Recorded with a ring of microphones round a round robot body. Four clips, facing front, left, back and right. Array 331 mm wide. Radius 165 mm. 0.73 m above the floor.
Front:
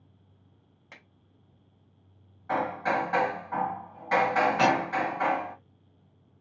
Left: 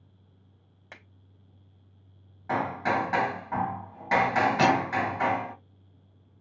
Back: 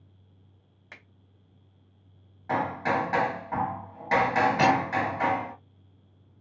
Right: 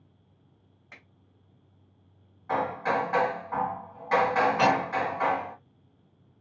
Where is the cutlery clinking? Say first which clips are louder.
Left 1 dB, back 2 dB; 110° left, 1.9 m.